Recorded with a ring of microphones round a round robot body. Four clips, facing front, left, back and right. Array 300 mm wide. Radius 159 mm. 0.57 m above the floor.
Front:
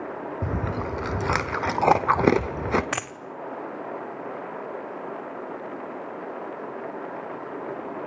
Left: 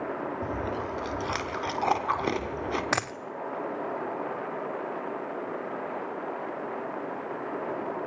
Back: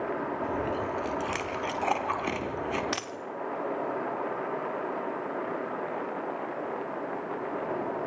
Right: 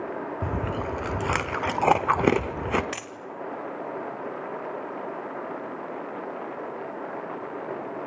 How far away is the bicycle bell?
I don't hear a bicycle bell.